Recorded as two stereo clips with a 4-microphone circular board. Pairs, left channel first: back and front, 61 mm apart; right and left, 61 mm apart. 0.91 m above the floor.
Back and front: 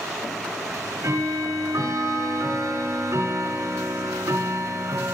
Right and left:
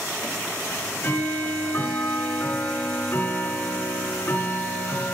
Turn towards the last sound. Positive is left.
turn(degrees=-35)